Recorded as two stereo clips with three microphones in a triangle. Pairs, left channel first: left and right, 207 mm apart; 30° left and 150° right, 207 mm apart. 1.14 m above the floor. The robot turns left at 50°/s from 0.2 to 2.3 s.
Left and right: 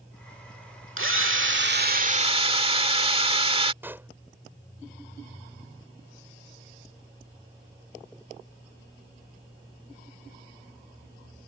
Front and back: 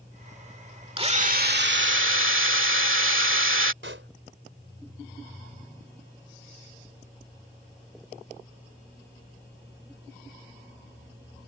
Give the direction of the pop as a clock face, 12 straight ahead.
6 o'clock.